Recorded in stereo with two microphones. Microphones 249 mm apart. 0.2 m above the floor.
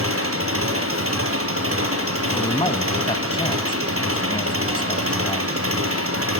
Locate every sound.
0.0 s an engine running: 60° right (ahead or behind), 4 m
2.3 s a man speaking: 20° left (ahead or behind), 1.3 m